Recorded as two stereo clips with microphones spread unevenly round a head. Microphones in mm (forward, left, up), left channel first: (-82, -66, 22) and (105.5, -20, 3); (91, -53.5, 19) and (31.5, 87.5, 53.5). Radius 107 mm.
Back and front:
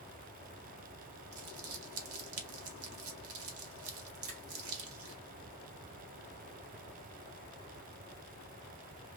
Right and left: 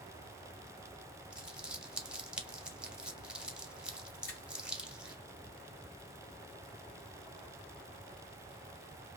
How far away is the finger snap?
About 3 m.